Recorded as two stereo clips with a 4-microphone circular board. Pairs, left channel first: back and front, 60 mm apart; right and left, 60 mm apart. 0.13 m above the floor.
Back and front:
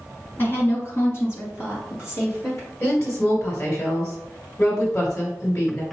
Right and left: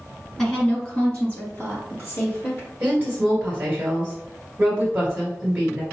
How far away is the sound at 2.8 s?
About 2.0 m.